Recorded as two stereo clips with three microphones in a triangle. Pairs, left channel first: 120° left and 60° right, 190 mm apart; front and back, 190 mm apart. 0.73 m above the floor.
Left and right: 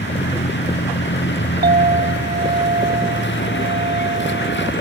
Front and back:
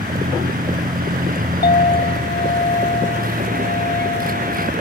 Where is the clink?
30° right.